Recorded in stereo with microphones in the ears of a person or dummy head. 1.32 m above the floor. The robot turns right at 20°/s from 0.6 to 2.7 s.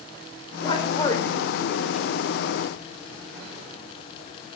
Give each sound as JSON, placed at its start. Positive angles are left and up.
{"t": 0.6, "sound": "a man speaking", "side_deg": 30, "distance_m": 4.0}